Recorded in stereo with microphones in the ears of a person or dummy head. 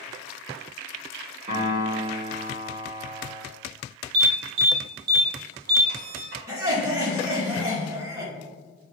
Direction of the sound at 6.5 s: 20° right (ahead or behind).